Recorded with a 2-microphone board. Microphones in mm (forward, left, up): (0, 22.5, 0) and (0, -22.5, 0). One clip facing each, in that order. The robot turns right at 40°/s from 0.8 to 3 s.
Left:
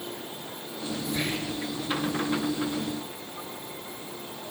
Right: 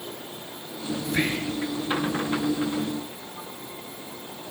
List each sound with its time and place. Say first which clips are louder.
1.1 s whispering: right 5 dB; 65° right (ahead or behind), 3.5 m; by 1.6 s 60° right (ahead or behind), 3.5 m